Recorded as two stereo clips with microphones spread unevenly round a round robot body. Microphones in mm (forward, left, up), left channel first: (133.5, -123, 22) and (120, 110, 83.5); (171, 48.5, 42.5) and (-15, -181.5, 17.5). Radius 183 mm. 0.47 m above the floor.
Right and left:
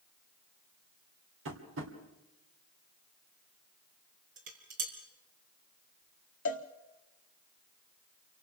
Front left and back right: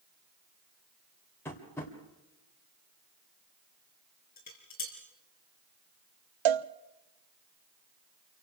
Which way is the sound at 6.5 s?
150° right.